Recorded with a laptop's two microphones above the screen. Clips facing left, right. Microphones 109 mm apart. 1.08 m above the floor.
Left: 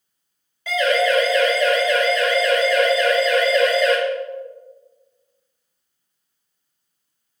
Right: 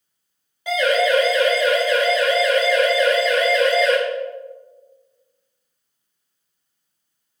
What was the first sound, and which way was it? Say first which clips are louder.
A siren: right 1 dB; 20° right (ahead or behind).